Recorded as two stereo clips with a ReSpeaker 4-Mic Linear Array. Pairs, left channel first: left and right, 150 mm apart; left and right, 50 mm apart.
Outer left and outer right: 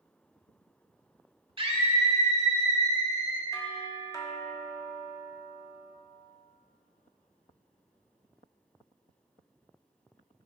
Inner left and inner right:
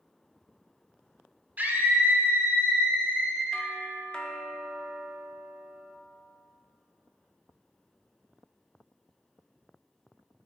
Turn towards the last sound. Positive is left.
turn(degrees=20)  # may be behind; listen again after turning